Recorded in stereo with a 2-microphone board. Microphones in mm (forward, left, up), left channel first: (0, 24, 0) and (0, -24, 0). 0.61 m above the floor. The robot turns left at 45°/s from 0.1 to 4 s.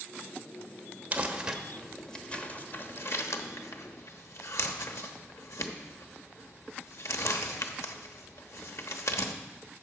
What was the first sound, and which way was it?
Crumpling, 30° right (ahead or behind).